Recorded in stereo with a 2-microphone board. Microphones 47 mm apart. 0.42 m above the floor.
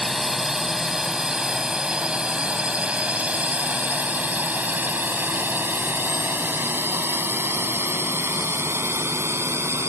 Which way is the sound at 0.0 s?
5° right (ahead or behind).